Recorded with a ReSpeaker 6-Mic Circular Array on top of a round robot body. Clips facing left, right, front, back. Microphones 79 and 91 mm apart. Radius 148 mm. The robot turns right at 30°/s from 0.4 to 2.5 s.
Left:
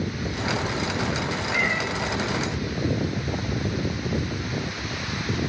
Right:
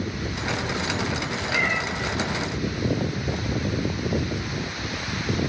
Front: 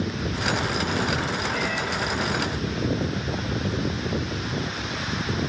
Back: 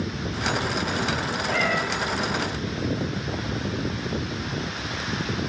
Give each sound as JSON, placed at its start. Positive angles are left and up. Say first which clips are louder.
{"t": 1.5, "sound": "a cat meowing", "louder": "right 1 dB, back 3 dB", "azimuth_deg": 180, "distance_m": 0.8}